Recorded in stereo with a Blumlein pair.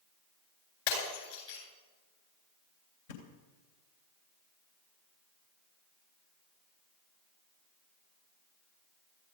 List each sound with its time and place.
0.9 s breaking glass: 55° left, 9.5 m
3.1 s a thud: 55° left, 3 m